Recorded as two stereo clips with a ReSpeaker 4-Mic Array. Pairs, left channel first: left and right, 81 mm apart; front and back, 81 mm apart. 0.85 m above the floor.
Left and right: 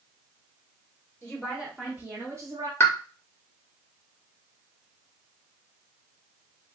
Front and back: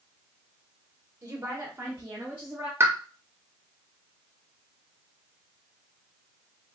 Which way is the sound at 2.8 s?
135° left.